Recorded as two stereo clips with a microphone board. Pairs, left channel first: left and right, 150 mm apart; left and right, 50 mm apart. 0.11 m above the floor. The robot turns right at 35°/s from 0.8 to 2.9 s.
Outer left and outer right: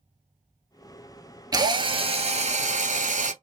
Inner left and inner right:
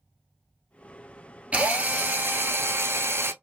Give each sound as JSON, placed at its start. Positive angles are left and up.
{"t": 1.5, "sound": "a drill", "azimuth_deg": -150, "distance_m": 0.8}